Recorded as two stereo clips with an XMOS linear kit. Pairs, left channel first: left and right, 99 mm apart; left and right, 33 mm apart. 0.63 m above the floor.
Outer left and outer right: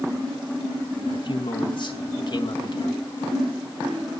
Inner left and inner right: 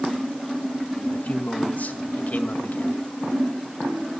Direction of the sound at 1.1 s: 50° left (ahead or behind).